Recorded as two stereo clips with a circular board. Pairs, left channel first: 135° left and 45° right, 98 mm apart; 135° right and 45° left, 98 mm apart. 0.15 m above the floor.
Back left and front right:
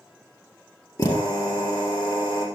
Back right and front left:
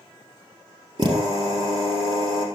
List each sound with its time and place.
1.0 s a drill: 80° left, 3.5 m